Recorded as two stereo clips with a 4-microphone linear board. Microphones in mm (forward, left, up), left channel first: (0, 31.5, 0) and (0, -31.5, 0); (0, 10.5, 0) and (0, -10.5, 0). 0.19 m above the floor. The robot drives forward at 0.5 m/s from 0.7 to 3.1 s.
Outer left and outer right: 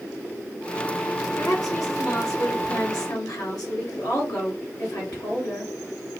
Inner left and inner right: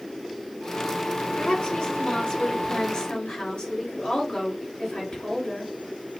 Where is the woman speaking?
60° left (ahead or behind), 3.5 m; by 5.7 s 65° left (ahead or behind), 3.5 m.